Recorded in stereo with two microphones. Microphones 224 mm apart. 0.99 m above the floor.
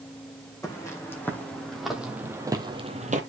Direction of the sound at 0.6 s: 15° left (ahead or behind).